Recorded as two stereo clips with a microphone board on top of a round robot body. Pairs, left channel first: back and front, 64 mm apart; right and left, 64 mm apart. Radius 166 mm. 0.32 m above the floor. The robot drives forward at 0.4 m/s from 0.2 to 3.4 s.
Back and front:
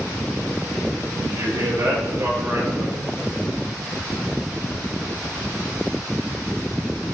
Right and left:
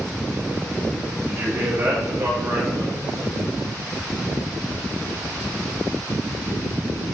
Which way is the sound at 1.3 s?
45° left.